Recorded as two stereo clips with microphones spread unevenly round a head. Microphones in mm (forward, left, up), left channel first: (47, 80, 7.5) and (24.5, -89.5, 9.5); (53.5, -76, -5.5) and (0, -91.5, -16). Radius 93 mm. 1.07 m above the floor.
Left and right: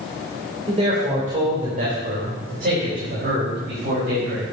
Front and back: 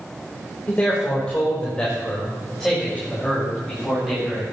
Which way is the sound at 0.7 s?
45° right.